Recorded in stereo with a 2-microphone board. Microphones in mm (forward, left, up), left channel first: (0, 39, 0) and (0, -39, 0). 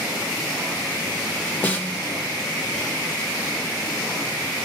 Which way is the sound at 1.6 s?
20° left (ahead or behind).